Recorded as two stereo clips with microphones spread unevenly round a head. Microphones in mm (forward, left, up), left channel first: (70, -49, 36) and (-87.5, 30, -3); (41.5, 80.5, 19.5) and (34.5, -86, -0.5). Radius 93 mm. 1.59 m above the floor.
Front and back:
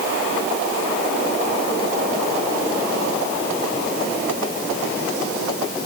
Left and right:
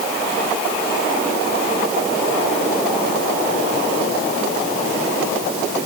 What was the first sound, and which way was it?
Only background noise.